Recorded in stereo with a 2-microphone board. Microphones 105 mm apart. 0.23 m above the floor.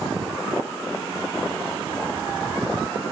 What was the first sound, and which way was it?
Only background noise.